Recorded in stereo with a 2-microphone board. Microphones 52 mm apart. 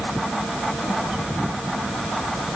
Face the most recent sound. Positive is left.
No sound to turn to.